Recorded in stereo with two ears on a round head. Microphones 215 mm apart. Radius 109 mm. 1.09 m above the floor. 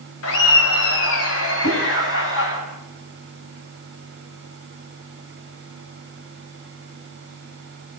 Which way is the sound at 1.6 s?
55° left (ahead or behind).